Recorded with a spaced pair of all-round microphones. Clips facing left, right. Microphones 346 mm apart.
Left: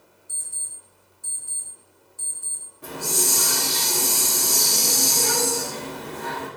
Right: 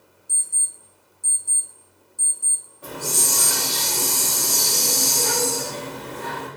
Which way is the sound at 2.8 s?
35° left (ahead or behind).